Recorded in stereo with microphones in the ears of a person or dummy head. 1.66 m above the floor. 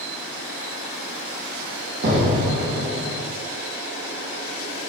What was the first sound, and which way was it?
An explosion, 55° right (ahead or behind).